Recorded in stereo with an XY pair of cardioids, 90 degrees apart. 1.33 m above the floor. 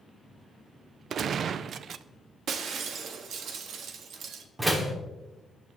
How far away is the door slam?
About 2.5 m.